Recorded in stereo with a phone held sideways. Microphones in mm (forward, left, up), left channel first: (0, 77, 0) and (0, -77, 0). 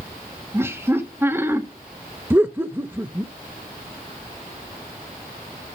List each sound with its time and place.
0.5 s laughter: 15° right (ahead or behind), 1.9 m
2.3 s laughter: 15° right (ahead or behind), 0.7 m